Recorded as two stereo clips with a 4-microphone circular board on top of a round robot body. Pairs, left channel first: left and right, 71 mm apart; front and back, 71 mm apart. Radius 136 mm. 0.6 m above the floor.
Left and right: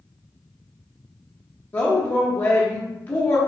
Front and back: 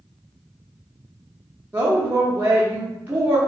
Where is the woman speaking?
135° left, 0.9 m.